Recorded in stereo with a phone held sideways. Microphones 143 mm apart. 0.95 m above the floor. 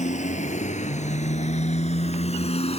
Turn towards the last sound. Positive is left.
turn(degrees=45)  # may be behind; listen again after turning